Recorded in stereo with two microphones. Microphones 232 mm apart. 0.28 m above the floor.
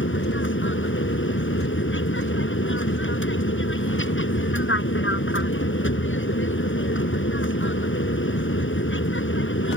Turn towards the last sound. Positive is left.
turn(degrees=60)  # may be behind; listen again after turning